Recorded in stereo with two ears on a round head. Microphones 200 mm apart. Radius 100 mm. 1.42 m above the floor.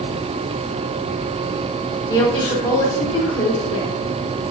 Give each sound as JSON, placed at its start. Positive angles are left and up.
{"t": 2.1, "sound": "a woman speaking", "side_deg": 15, "distance_m": 4.0}